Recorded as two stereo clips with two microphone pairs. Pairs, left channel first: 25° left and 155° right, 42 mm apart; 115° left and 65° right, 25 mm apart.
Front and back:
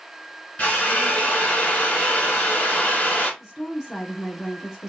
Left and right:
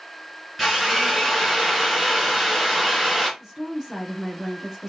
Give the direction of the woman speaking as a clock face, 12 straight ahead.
3 o'clock.